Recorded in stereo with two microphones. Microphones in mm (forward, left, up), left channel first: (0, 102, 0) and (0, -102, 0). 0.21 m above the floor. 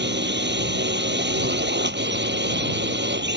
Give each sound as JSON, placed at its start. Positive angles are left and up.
{"t": 0.0, "sound": "a drone", "side_deg": -65}